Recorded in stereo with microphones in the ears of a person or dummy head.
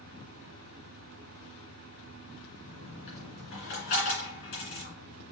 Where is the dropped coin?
45° left (ahead or behind), 2.5 m.